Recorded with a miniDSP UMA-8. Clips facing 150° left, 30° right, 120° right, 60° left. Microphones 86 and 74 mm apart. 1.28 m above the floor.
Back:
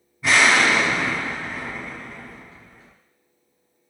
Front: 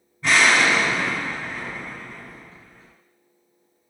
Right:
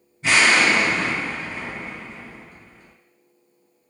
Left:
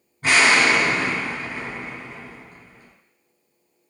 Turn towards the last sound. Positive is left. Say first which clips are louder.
# back 1 dB, even
turn(degrees=65)